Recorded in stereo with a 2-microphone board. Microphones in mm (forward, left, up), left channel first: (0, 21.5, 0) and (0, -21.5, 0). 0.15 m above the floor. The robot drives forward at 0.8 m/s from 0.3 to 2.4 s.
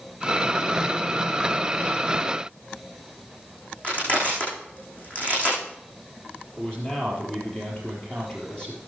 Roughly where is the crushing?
Left.